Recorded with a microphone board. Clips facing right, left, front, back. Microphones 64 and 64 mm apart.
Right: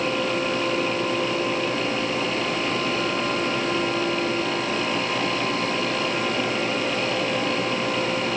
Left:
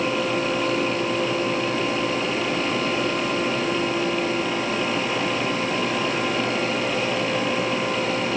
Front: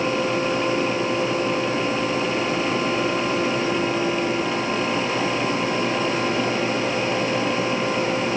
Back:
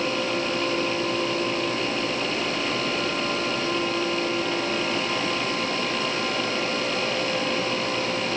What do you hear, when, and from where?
Only background noise.